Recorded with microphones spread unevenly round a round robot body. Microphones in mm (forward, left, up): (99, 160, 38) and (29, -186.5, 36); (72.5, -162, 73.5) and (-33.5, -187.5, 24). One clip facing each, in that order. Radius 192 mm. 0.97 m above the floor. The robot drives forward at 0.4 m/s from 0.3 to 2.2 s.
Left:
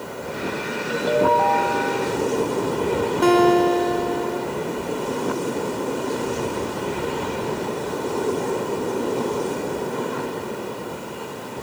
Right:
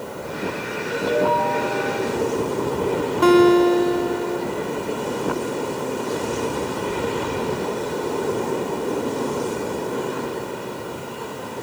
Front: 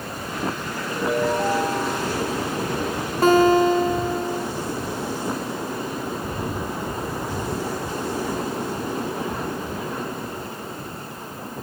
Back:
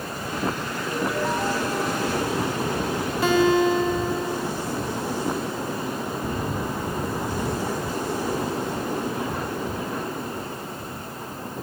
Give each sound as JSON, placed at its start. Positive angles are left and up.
{"t": 0.9, "sound": "a ringtone", "azimuth_deg": 55, "distance_m": 5.5}
{"t": 3.2, "sound": "a guitar", "azimuth_deg": -25, "distance_m": 4.5}